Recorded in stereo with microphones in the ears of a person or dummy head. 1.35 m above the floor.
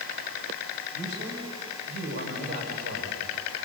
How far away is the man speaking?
About 6.5 m.